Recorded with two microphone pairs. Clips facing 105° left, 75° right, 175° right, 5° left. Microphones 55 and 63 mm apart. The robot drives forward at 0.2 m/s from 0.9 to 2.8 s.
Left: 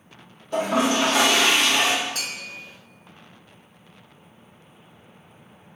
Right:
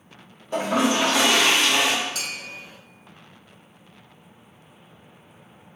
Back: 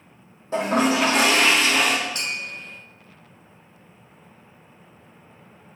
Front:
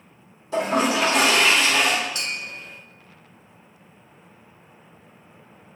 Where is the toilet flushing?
140° right, 1.2 m; by 1.9 s 145° right, 1.3 m.